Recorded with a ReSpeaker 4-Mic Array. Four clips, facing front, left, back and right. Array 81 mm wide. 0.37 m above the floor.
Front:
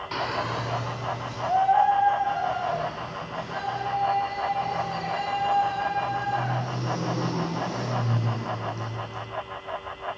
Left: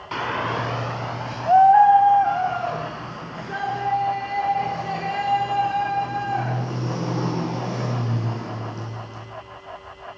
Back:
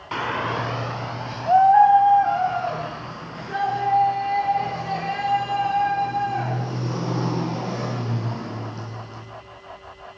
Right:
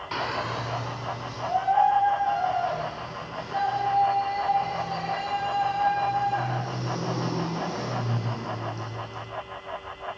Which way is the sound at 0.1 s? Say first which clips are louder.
Left 5 dB, back 4 dB; 155° left.